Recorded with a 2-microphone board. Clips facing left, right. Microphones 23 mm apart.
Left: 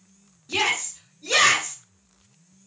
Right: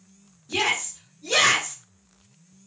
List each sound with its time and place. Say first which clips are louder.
0.5 s a shout: left 1 dB; 30° left (ahead or behind), 1.2 m